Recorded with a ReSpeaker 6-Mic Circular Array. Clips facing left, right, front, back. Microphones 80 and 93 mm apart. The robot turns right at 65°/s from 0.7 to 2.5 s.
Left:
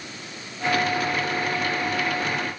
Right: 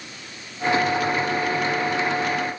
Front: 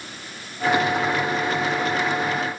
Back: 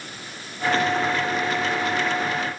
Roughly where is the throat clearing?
I don't hear throat clearing.